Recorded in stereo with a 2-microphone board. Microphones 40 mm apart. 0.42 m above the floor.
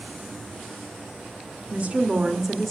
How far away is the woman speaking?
About 1.0 m.